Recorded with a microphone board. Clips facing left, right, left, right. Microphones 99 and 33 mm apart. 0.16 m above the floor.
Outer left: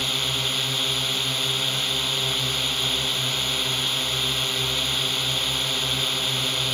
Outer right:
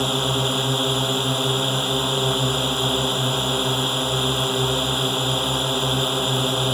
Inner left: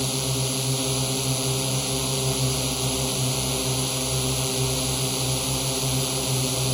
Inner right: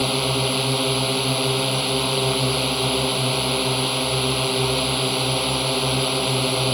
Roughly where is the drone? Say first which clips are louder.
Outer right 9 dB, inner right 6 dB; right.